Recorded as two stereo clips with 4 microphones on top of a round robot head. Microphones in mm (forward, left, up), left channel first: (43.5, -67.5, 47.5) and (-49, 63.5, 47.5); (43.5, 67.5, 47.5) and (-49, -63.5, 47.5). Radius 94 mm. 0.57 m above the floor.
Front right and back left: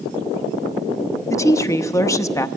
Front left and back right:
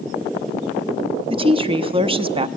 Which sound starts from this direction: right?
A woman speaking, at 1.3 s.